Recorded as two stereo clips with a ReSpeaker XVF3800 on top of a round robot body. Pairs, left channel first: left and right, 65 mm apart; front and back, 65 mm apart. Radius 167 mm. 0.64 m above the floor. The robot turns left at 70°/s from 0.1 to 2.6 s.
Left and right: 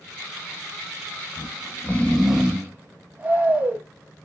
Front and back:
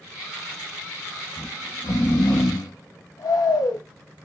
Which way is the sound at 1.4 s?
60° left.